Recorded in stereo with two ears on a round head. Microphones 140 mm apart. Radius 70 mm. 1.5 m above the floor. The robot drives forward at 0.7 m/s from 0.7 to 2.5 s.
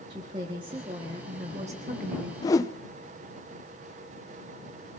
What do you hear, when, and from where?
0.1 s a woman speaking: 30° right (ahead or behind), 2 m; by 2.3 s 55° right (ahead or behind), 1.4 m
2.4 s a whoosh: 25° left (ahead or behind), 0.5 m; by 2.7 s 20° left (ahead or behind), 0.6 m